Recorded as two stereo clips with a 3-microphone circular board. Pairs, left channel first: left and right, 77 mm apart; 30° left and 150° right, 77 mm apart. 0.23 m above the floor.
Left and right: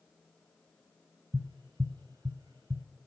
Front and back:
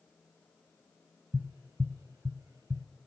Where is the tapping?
115° right, 1.0 m.